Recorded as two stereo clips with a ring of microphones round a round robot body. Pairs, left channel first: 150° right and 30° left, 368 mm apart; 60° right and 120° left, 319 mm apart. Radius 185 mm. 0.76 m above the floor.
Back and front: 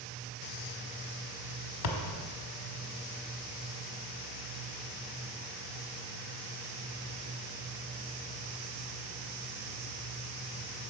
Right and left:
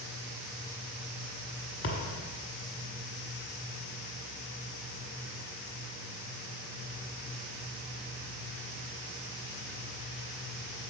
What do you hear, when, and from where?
1.8 s a thud: 115° right, 1.1 m